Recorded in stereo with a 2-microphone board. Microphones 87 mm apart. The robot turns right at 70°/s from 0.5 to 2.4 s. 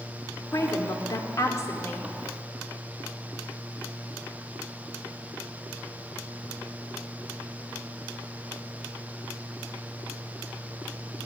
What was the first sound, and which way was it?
A woman speaking, 50° left.